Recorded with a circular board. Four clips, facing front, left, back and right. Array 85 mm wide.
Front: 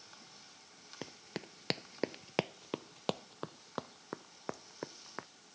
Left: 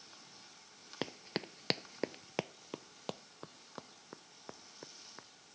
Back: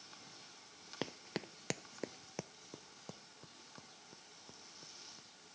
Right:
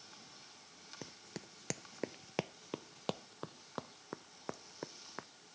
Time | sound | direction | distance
1.0 | running footsteps | 115° left | ?